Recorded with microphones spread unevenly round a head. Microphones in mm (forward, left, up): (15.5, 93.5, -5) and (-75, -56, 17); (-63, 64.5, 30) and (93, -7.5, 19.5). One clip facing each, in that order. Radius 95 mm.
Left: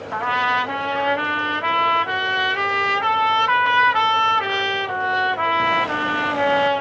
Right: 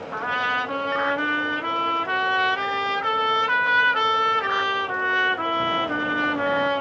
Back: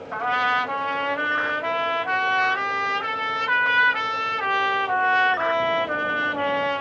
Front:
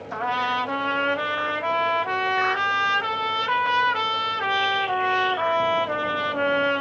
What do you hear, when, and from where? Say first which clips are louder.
0.1 s a trumpet: left 7 dB, back 1 dB; 30° left, 2.5 m